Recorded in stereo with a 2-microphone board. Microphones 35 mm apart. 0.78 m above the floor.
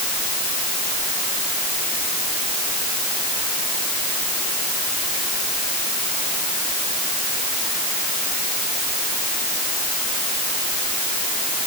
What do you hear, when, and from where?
Only background noise.